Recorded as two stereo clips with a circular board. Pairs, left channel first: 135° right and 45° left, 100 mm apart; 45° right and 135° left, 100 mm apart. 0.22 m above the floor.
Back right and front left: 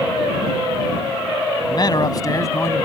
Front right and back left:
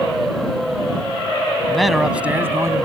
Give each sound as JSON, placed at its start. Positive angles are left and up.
{"t": 1.7, "sound": "a man speaking", "azimuth_deg": -125}